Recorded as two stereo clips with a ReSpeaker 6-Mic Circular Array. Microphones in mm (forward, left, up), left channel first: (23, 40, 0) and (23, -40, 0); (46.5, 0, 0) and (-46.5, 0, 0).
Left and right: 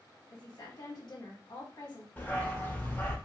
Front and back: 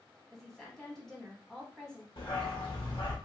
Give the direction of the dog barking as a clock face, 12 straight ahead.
11 o'clock.